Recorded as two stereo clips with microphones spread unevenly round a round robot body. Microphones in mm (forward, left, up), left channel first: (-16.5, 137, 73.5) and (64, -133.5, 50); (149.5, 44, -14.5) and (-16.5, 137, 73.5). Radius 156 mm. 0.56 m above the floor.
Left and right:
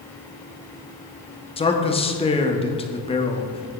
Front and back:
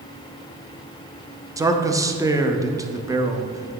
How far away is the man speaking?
About 0.9 m.